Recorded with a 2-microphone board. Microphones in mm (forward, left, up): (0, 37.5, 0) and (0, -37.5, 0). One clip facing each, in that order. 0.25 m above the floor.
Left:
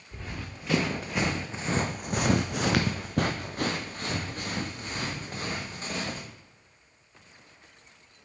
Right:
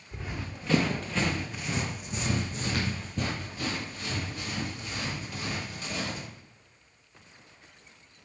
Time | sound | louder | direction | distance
0.1 | running footsteps | right 1 dB | 5° right (ahead or behind) | 1.6 m